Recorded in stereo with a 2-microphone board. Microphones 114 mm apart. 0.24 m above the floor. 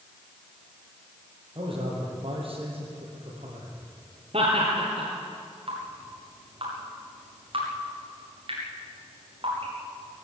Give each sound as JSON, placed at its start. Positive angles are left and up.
{"t": 1.6, "sound": "a man speaking", "side_deg": -50, "distance_m": 7.5}
{"t": 4.3, "sound": "laughter", "side_deg": -60, "distance_m": 4.0}
{"t": 5.7, "sound": "dripping", "side_deg": -50, "distance_m": 8.0}